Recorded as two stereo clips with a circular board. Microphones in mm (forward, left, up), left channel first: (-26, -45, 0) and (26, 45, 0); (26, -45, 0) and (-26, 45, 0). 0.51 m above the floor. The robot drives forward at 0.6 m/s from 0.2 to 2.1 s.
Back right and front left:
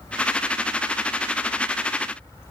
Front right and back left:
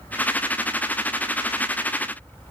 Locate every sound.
Only background noise.